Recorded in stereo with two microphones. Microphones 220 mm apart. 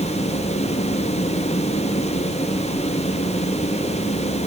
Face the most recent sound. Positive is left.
No sound to turn to.